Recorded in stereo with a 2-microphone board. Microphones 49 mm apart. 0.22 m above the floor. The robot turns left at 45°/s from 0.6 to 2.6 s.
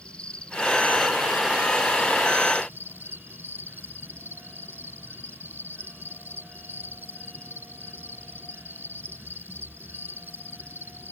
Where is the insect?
25° left; by 11.1 s 65° right.